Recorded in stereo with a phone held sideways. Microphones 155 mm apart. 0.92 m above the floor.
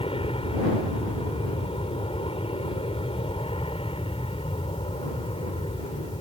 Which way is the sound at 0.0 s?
40° left (ahead or behind).